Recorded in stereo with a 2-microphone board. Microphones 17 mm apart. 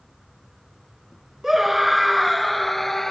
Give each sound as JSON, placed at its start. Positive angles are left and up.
{"t": 1.4, "sound": "a scream", "side_deg": -25}